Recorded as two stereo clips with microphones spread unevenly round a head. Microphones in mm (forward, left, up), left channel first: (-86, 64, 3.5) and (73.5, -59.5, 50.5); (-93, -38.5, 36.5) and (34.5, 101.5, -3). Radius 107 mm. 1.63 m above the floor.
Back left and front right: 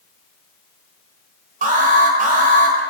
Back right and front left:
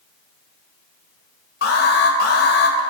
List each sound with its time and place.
1.6 s an alarm: 90° right, 2 m